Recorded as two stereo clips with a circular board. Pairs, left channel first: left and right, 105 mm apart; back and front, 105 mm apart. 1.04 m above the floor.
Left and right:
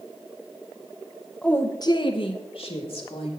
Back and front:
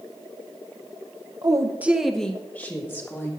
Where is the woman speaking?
15° left, 0.9 m; by 3.3 s 115° left, 2.5 m.